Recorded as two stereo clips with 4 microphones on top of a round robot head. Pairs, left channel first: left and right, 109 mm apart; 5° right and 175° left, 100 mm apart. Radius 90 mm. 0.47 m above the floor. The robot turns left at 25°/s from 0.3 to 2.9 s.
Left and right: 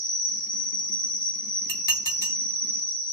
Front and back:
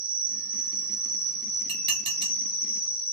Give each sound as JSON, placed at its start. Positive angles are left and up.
{"t": 0.0, "sound": "an insect", "azimuth_deg": 110, "distance_m": 1.7}
{"t": 1.7, "sound": "dishes clattering", "azimuth_deg": 165, "distance_m": 1.6}